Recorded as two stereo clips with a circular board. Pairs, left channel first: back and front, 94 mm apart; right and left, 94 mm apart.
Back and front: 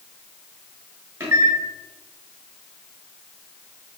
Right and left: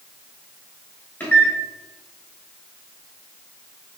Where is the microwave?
40° right, 1.1 m.